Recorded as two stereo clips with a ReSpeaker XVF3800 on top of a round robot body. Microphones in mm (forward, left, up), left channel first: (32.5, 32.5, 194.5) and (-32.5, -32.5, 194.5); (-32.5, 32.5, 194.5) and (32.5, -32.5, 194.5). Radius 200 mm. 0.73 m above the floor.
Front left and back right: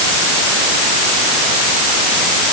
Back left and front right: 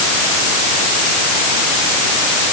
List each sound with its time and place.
Only background noise.